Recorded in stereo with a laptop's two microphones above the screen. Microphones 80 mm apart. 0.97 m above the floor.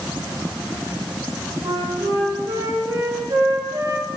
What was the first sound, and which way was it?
A flute, 65° right (ahead or behind).